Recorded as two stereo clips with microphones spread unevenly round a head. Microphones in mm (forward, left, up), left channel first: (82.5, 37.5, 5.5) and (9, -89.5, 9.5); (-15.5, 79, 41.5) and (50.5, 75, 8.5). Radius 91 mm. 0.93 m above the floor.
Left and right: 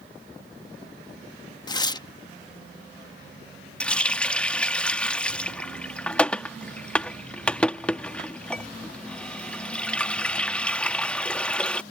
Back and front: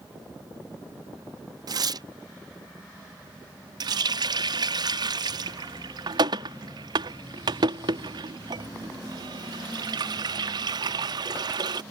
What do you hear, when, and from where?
1.7 s tearing paper: 5° right
3.8 s a running tap: 25° right